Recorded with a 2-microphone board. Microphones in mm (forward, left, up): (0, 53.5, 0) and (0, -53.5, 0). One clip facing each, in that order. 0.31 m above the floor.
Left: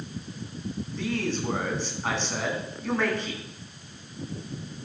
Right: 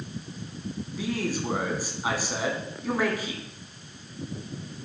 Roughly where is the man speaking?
Centre.